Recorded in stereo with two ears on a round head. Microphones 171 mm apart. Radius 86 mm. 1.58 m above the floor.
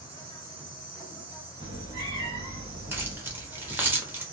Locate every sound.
0.0 s an insect: 25° right (ahead or behind), 1.7 m
1.6 s a cat meowing: 25° right (ahead or behind), 1.9 m
2.9 s keys jangling: 10° right (ahead or behind), 0.7 m